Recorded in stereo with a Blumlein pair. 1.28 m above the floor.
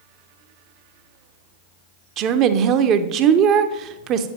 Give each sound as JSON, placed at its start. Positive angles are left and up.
{"t": 2.2, "sound": "a woman speaking", "azimuth_deg": -35, "distance_m": 0.6}